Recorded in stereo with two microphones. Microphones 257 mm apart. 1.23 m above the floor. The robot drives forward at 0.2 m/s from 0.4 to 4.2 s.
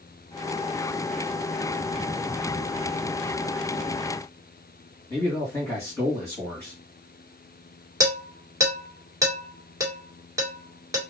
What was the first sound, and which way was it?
A man speaking, 10° left (ahead or behind).